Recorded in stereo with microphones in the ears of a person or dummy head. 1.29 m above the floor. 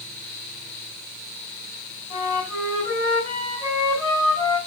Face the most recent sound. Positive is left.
turn(degrees=30)  # may be behind; listen again after turning